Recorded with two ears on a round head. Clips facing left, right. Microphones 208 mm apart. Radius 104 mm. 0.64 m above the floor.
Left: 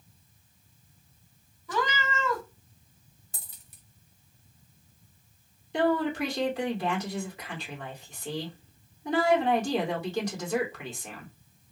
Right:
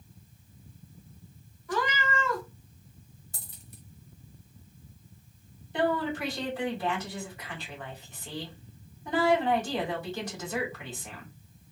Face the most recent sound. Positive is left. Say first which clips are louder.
# left 3 dB
turn(degrees=55)  # may be behind; listen again after turning